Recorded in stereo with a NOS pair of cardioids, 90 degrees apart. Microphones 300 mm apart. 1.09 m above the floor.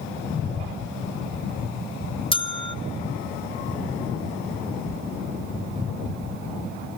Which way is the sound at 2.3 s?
15° left.